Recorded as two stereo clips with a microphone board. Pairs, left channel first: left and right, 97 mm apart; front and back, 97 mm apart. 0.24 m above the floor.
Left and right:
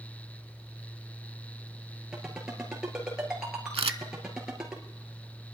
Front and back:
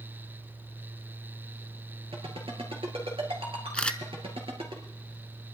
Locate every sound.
2.1 s a ringtone: 175° right, 3.5 m
3.7 s a camera shutter: 80° right, 0.6 m